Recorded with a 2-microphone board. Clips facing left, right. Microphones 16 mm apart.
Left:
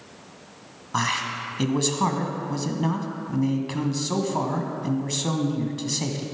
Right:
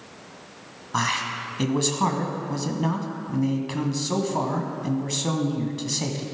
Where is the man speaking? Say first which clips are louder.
Even; centre (ahead or behind), 1.2 m.